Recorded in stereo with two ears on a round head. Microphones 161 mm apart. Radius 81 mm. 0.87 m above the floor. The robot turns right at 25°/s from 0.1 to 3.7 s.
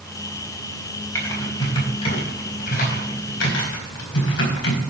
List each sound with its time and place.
1.1 s typing on a keyboard: 15° left (ahead or behind), 4.5 m; by 4.8 s 75° left (ahead or behind), 4.5 m